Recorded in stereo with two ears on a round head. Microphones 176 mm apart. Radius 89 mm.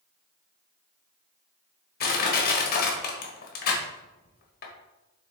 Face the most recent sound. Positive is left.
turn(degrees=50)  # may be behind; listen again after turning